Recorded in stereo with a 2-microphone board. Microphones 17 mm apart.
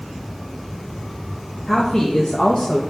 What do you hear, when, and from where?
1.7 s a woman speaking: 30° left (ahead or behind), 0.9 m; by 2.8 s 65° left (ahead or behind), 0.7 m